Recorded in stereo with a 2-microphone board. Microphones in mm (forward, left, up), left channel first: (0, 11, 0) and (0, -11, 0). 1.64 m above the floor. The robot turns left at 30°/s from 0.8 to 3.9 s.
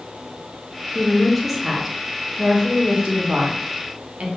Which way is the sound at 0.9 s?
10° left (ahead or behind).